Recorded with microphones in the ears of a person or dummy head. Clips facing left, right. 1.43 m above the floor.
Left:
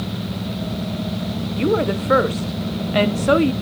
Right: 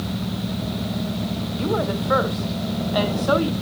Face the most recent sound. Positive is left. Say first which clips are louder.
# left 5 dB
turn(degrees=40)  # may be behind; listen again after turning